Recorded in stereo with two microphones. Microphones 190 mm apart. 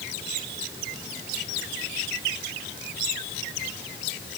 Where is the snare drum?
No snare drum in this recording.